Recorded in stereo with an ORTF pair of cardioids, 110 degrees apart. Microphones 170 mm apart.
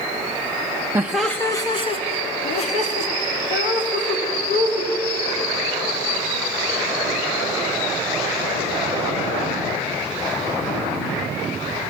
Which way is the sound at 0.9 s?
15° right.